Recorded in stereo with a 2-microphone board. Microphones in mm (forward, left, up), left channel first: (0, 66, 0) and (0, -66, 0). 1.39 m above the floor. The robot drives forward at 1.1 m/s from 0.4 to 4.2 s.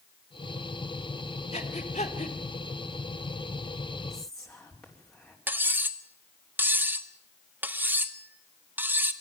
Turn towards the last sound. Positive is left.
turn(degrees=-15)  # may be behind; listen again after turning